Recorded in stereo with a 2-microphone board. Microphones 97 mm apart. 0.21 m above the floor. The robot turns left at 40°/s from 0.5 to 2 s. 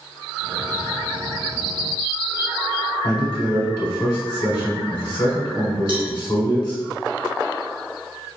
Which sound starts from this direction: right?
A cowbell, at 5.9 s.